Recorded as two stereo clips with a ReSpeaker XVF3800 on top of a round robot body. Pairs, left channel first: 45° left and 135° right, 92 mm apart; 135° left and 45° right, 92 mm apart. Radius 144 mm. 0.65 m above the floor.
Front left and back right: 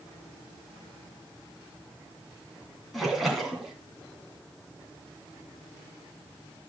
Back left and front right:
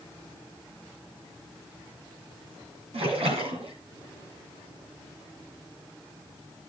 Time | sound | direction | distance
2.9 | a splash | 45° right | 2.5 m